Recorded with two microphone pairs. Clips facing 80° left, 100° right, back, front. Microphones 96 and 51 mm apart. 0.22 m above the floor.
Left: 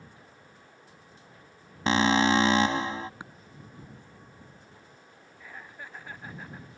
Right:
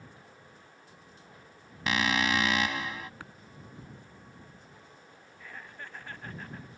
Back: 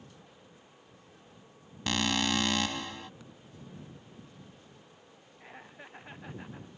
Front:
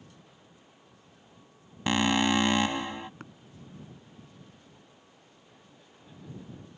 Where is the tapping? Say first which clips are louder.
Left 2 dB, front 5 dB; 15° left.